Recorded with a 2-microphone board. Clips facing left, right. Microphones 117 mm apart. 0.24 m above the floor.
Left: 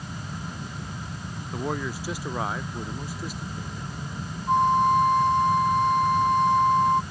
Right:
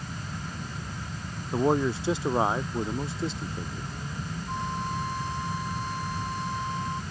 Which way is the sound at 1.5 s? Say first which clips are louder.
Right 7 dB; 30° right (ahead or behind).